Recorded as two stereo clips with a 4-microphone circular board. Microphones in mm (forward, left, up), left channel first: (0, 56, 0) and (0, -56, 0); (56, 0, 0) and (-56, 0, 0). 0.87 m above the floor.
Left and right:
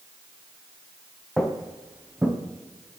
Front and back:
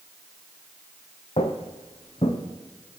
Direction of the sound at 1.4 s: 5° left.